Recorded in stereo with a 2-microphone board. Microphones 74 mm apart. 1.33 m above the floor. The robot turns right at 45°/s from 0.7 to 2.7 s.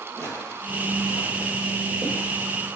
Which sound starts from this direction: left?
Footsteps, at 0.2 s.